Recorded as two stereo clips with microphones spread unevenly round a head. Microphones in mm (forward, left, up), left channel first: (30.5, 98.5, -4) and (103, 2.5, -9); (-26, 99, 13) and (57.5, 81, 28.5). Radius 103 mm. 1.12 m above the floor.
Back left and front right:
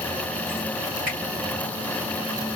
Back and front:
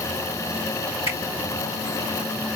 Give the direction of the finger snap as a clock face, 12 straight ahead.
5 o'clock.